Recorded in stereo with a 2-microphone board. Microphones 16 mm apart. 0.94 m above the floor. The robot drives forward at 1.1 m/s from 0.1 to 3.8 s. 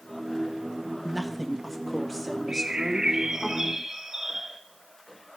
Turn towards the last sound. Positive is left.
turn(degrees=-30)  # may be behind; listen again after turning